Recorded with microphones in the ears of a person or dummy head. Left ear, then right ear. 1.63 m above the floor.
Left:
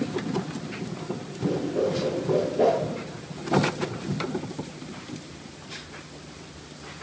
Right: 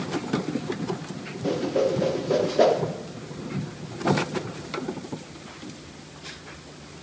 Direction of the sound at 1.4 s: 50° right (ahead or behind).